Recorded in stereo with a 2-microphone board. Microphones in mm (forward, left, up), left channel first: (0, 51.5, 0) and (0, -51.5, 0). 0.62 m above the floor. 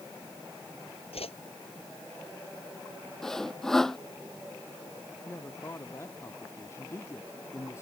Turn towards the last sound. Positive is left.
turn(degrees=30)  # may be behind; listen again after turning